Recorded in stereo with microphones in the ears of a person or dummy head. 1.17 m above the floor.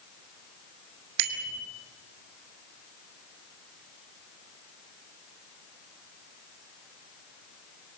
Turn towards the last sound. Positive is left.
turn(degrees=-65)  # may be behind; listen again after turning